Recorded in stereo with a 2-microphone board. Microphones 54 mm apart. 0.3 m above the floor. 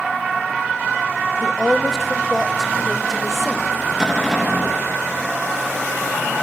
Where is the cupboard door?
Centre (ahead or behind), 8 m.